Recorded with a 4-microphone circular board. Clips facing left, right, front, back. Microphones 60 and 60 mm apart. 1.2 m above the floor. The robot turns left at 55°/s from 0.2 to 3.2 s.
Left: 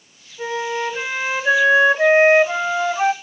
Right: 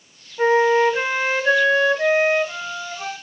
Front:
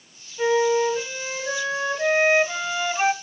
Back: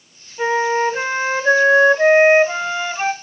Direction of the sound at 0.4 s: 125° right.